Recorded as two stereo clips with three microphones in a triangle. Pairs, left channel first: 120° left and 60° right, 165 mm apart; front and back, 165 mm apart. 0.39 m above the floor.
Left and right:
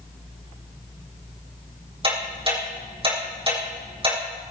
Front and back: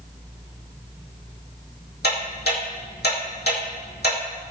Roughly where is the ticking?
Ahead.